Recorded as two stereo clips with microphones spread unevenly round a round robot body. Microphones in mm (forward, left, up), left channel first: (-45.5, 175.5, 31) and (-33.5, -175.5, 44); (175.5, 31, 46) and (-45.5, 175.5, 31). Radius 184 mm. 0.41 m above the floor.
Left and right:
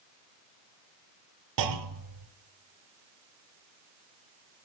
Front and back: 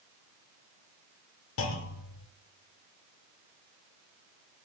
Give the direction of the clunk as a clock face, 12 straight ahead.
2 o'clock.